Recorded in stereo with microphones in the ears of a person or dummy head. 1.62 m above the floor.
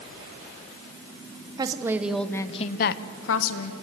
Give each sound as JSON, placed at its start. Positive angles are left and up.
{"t": 1.6, "sound": "a woman speaking", "side_deg": -25, "distance_m": 1.3}